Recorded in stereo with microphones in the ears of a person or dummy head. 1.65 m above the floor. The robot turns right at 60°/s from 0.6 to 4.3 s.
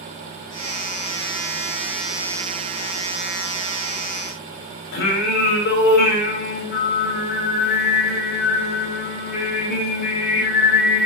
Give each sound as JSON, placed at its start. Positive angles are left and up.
{"t": 4.9, "sound": "singing", "side_deg": 55, "distance_m": 3.0}